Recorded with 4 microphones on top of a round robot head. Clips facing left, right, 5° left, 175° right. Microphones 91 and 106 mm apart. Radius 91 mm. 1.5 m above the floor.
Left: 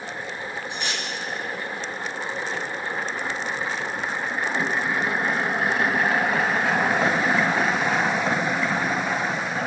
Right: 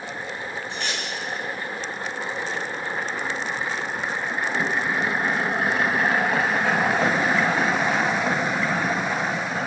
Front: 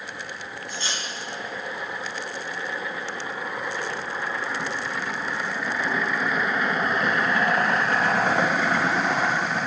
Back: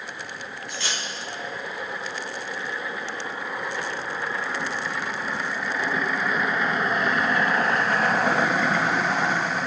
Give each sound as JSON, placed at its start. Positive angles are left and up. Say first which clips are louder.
{"t": 0.7, "sound": "cutlery clinking", "louder": "even, even", "azimuth_deg": 170, "distance_m": 3.5}